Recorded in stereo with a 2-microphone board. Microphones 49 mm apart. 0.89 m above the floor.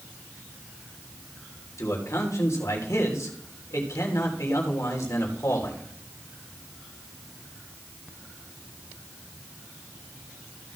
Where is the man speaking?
80° left, 3 m.